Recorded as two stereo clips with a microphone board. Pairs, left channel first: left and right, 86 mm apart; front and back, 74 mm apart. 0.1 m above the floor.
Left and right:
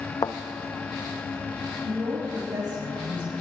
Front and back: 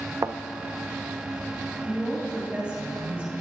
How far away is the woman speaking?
About 3 m.